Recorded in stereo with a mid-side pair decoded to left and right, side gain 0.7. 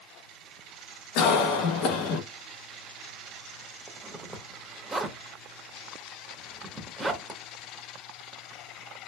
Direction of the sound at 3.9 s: 20° right.